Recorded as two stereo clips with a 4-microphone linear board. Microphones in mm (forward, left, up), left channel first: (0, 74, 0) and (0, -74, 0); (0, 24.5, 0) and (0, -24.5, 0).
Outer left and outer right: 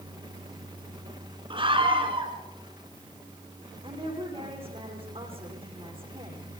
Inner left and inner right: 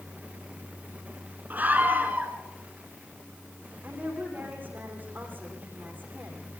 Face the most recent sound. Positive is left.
turn(degrees=-35)  # may be behind; listen again after turning